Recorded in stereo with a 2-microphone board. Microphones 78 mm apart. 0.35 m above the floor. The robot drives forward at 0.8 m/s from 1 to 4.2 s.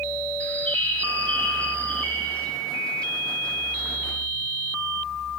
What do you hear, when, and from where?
0.4 s a bird: 20° left (ahead or behind), 4.5 m; by 2.5 s 15° left (ahead or behind), 5.5 m